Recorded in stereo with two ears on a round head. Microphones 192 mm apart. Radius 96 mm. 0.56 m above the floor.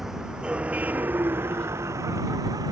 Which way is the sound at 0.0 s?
Centre (ahead or behind).